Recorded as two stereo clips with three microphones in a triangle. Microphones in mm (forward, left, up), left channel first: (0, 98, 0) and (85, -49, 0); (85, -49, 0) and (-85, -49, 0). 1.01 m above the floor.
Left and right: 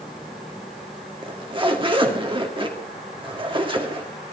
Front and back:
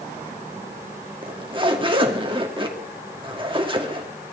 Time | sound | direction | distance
1.2 | a zipper | 120° right | 1.9 m